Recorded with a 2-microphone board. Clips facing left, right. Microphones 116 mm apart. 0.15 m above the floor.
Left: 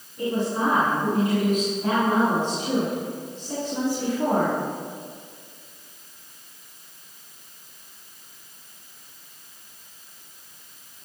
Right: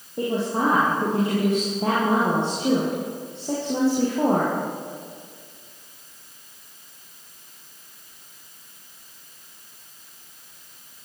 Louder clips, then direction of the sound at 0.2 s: Right 1 dB; 70° right (ahead or behind).